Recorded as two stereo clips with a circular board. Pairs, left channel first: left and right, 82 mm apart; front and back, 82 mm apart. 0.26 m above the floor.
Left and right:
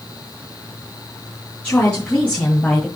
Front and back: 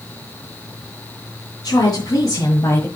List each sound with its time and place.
1.6 s a woman speaking: 20° left, 3 m; by 2.9 s 15° left, 1.7 m